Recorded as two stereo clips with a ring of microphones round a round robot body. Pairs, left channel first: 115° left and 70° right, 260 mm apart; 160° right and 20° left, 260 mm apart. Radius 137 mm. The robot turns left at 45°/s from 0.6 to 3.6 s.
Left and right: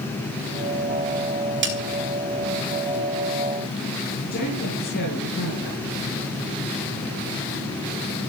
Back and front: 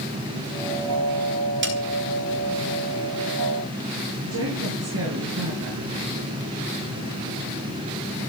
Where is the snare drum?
20° right, 4 m; by 1.8 s 30° right, 4 m.